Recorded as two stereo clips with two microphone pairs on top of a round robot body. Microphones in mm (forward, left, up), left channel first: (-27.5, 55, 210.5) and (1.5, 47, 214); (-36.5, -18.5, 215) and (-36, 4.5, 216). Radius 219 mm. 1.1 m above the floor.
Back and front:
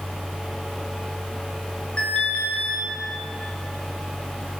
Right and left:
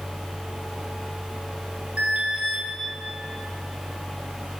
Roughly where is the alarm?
Left.